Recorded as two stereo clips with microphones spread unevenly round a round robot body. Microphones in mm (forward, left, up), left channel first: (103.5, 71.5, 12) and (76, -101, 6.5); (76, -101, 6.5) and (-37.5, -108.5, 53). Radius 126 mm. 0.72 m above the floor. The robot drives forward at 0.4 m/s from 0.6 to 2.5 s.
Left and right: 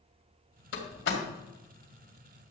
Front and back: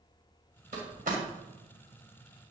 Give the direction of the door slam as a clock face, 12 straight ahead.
8 o'clock.